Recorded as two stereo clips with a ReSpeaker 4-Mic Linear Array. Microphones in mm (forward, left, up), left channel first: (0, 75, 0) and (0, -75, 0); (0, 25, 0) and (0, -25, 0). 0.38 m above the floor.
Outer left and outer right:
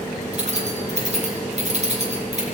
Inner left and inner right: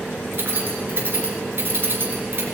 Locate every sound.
0.3 s keys jangling: 50° right (ahead or behind), 3.5 m